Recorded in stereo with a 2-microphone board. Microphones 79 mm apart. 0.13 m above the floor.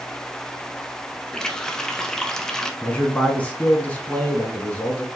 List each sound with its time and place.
1.3 s a running tap: 10° left (ahead or behind), 0.8 m
2.8 s a man speaking: 20° left (ahead or behind), 1.4 m